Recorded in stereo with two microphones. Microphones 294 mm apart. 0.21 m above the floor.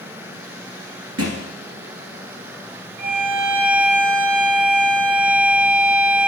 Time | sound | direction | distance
1.2 | a thud | 55° right (ahead or behind) | 1.8 m
3.0 | a violin | 25° right (ahead or behind) | 3.5 m